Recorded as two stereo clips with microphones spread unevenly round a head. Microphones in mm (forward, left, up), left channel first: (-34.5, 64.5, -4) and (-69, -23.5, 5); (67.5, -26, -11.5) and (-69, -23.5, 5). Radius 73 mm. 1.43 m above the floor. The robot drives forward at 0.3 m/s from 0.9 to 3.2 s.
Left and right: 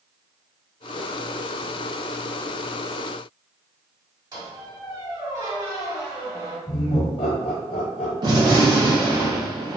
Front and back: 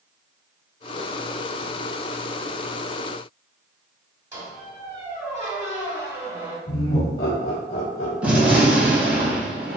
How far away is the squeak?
About 1.7 m.